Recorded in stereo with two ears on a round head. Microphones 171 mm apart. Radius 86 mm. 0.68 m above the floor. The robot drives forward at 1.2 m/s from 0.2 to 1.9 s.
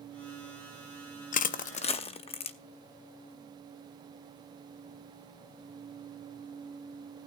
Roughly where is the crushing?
Left.